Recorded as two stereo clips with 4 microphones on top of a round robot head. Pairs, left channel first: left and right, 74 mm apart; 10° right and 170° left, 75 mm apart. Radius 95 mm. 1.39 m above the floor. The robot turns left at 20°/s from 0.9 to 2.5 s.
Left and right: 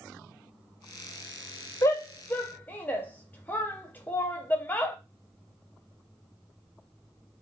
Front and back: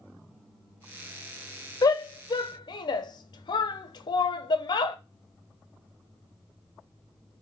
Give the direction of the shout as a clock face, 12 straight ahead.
11 o'clock.